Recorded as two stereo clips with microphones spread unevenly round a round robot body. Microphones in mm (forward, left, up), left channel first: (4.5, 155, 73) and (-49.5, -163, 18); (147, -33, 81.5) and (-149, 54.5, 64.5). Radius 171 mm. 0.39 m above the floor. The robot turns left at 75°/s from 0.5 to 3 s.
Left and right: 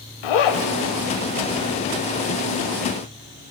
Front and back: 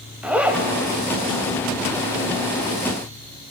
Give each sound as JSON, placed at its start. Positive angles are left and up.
{"t": 0.2, "sound": "a zipper", "azimuth_deg": 80, "distance_m": 1.0}